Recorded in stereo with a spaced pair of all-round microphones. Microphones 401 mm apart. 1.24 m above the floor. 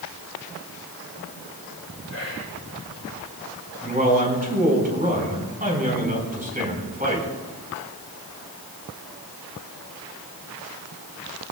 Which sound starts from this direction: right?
A man speaking, at 3.8 s.